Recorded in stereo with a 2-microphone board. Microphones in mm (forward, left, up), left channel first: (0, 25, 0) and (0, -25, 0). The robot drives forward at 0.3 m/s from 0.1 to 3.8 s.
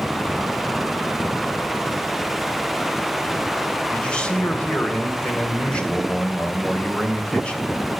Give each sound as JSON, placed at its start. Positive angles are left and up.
{"t": 3.9, "sound": "a man speaking", "side_deg": 20, "distance_m": 2.5}